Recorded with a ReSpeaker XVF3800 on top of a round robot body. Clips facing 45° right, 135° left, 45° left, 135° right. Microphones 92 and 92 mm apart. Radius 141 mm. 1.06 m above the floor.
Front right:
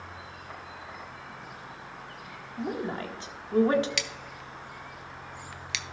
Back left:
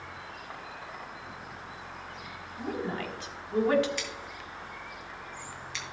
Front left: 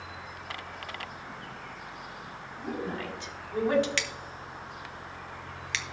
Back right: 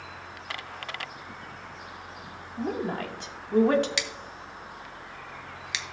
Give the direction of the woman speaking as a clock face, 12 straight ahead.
3 o'clock.